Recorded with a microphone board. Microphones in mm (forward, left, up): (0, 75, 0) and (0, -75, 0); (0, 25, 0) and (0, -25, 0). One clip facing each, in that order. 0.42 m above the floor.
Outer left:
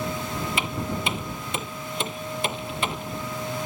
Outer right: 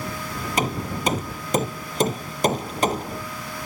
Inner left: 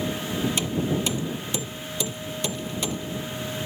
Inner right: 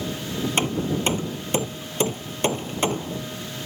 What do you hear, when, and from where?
0.6 s hammering: 40° right (ahead or behind)